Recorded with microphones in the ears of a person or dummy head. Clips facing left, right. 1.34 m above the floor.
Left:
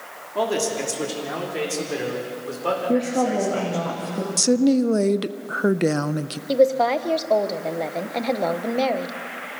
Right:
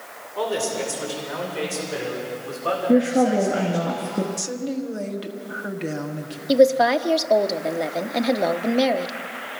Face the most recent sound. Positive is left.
turn(degrees=-10)  # may be behind; listen again after turning